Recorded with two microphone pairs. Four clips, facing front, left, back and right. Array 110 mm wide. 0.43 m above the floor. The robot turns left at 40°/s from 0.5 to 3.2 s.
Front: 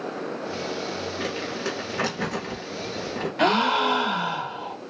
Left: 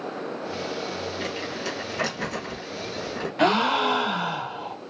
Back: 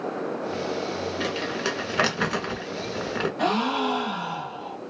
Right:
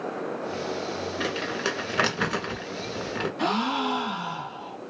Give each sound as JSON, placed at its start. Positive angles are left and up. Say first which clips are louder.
{"t": 1.2, "sound": "crumpling", "louder": "right 2 dB, back 1 dB", "azimuth_deg": -95, "distance_m": 1.9}
{"t": 3.4, "sound": "a gasp", "louder": "left 6 dB, front 5 dB", "azimuth_deg": 60, "distance_m": 0.9}